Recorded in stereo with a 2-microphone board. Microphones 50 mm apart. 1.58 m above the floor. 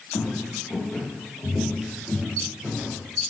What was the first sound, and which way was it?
Footsteps, 35° left (ahead or behind).